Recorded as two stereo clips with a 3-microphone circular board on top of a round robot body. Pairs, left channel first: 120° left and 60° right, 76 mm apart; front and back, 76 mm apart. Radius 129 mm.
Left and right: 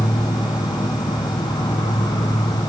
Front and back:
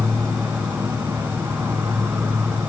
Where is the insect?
115° left, 2 m.